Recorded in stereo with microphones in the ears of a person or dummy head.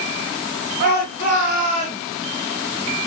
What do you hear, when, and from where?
0.8 s a shout: 50° right (ahead or behind), 8 m; by 2.0 s 40° right (ahead or behind), 9 m